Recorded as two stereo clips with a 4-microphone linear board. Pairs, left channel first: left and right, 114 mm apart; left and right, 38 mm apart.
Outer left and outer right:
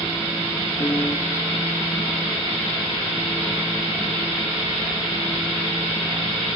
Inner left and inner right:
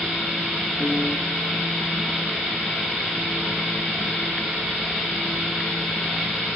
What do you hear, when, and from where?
0.8 s a piano: 35° left (ahead or behind), 2.5 m